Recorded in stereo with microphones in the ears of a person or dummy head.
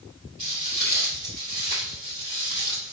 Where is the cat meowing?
I don't hear a cat meowing.